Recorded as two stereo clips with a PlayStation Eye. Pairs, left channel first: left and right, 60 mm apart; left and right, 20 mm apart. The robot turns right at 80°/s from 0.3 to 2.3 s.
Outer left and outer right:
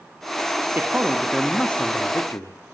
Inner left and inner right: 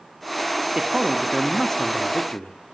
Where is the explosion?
I don't hear an explosion.